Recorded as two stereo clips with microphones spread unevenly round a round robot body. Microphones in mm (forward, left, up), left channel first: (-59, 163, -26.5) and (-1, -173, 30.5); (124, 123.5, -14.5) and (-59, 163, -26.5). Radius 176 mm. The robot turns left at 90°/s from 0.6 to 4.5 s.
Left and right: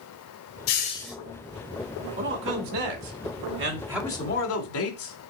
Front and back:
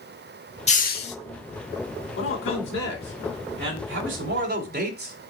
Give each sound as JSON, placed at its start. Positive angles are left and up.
{"t": 0.7, "sound": "a hiss", "azimuth_deg": 45, "distance_m": 1.1}
{"t": 2.2, "sound": "a man speaking", "azimuth_deg": -10, "distance_m": 2.5}